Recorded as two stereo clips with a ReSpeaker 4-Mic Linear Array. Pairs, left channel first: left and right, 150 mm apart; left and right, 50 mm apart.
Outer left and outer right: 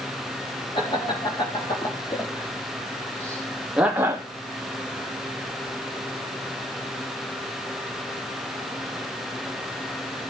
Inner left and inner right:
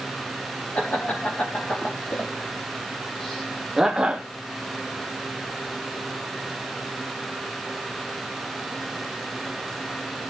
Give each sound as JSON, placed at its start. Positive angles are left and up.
{"t": 0.8, "sound": "laughter", "side_deg": 40, "distance_m": 3.5}